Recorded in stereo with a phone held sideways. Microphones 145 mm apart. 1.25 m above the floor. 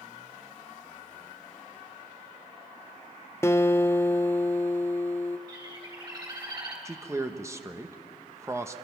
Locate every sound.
3.4 s a guitar: 20° left (ahead or behind), 0.5 m
5.5 s a bird: 30° right (ahead or behind), 4 m
6.8 s a man speaking: 20° right (ahead or behind), 1.0 m